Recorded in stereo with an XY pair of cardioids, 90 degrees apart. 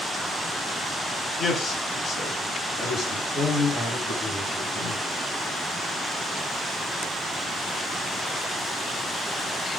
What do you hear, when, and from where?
1.4 s a man speaking: 60° left, 4 m; by 5.0 s 70° left, 6 m